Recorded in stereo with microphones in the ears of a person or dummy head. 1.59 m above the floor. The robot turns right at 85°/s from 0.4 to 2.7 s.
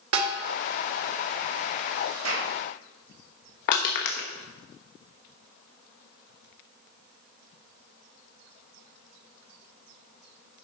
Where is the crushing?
55° left (ahead or behind), 1.3 m.